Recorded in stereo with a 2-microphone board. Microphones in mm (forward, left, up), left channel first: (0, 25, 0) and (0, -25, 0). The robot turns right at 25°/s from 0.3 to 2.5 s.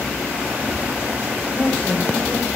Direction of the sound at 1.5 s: 30° left (ahead or behind).